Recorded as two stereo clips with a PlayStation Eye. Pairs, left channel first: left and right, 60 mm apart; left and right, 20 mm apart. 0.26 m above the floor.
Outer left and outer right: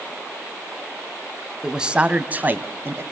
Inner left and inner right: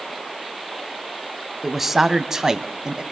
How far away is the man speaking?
About 1.5 m.